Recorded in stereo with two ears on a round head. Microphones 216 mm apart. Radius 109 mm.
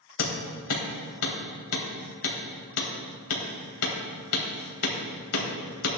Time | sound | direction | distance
0.2 | hammering | 70° left (ahead or behind) | 3 m